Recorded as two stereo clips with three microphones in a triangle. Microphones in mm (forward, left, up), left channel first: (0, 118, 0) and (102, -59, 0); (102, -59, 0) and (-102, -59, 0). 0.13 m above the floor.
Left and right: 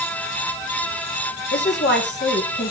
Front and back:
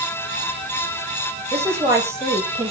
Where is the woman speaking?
105° left, 3 m.